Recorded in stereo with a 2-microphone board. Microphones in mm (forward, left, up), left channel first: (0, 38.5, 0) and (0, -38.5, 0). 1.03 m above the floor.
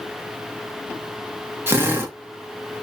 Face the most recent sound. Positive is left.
turn(degrees=-30)  # may be behind; listen again after turning